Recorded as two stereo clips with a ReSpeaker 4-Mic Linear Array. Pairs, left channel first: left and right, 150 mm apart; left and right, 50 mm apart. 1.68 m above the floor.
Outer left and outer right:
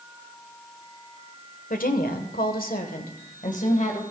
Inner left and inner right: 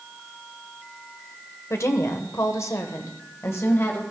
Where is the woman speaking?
70° left (ahead or behind), 1.3 m; by 4.0 s 50° left (ahead or behind), 1.7 m.